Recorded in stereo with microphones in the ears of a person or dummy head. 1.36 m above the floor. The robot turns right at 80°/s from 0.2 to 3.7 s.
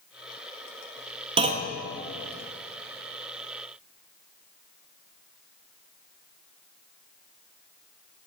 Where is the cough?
I don't hear a cough.